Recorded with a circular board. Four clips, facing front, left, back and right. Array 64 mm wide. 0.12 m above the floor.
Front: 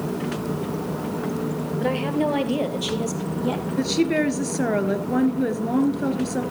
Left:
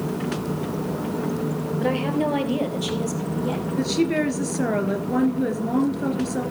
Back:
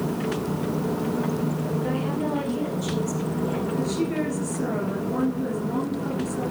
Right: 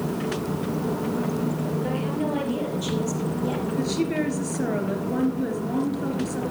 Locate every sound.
1.8 s a woman speaking: 45° left, 3 m; by 3.6 s 10° left, 5 m
3.8 s a woman speaking: 25° left, 2.5 m